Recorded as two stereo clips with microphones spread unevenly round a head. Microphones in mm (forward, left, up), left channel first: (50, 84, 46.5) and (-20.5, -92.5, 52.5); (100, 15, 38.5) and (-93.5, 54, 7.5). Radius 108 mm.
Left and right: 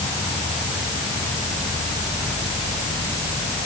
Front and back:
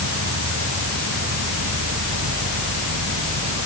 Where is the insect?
145° left.